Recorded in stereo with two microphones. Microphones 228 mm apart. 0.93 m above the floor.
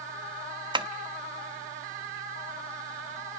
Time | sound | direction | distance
0.7 | tapping | 20° right (ahead or behind) | 1.3 m